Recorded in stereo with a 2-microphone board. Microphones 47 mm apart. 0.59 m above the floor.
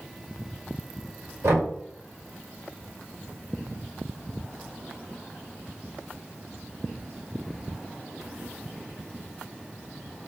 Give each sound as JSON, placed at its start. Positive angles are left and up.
{"t": 1.4, "sound": "knocking", "side_deg": -75, "distance_m": 1.8}